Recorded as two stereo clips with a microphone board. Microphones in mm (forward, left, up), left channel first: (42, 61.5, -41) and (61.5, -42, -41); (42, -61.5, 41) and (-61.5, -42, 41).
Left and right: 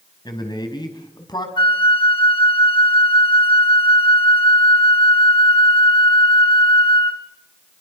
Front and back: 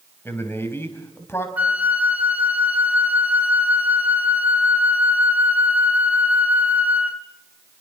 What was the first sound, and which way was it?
A man speaking, 55° left.